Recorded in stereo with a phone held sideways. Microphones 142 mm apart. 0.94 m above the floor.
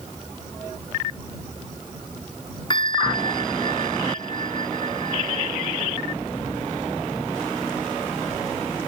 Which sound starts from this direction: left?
A bell, at 2.7 s.